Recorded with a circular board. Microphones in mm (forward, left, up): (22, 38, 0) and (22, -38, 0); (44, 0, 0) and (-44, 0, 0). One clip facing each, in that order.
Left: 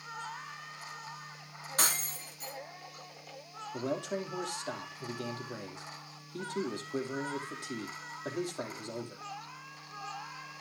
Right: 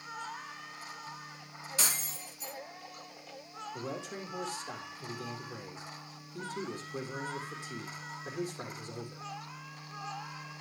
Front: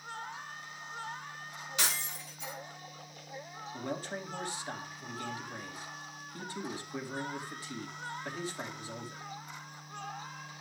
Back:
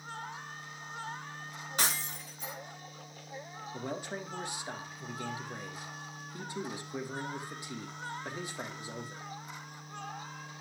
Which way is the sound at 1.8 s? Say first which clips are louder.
Left 4 dB, back 2 dB; 130° left.